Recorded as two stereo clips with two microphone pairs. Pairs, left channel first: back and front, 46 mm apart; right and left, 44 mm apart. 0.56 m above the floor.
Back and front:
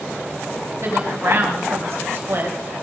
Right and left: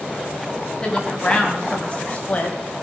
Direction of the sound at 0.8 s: 20° right.